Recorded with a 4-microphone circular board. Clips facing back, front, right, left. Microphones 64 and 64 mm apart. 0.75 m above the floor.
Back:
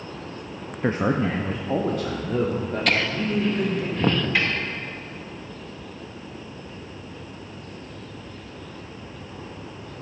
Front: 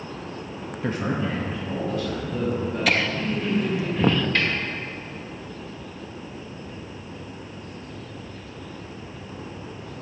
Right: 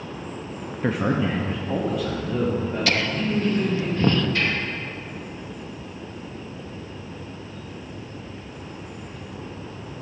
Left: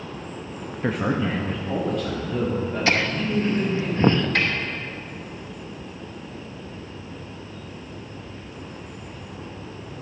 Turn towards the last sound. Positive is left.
turn(degrees=100)